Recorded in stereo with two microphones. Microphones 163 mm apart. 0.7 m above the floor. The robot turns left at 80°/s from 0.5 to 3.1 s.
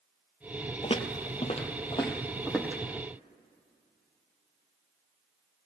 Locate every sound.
0.8 s footsteps: 35° left (ahead or behind), 0.8 m; by 2.8 s 20° right (ahead or behind), 1.9 m